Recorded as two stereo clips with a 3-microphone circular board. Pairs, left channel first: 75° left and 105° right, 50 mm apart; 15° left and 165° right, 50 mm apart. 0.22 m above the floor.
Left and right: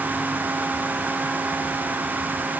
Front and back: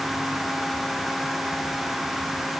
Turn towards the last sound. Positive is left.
No sound to turn to.